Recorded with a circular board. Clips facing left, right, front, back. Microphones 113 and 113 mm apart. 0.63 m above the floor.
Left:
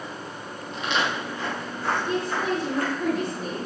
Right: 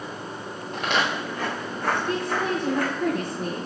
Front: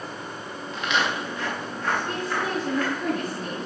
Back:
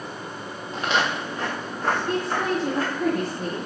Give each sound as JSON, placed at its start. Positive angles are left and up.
{"t": 0.7, "sound": "footsteps", "azimuth_deg": -125, "distance_m": 5.0}
{"t": 2.1, "sound": "a woman speaking", "azimuth_deg": -120, "distance_m": 6.0}